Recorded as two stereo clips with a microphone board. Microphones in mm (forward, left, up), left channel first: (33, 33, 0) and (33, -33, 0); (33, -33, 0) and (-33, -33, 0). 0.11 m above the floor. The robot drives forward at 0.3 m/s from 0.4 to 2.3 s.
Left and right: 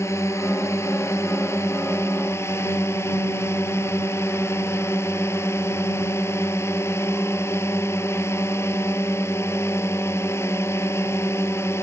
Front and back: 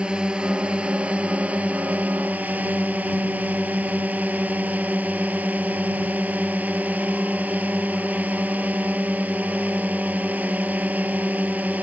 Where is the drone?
110° left; by 11.8 s 120° left.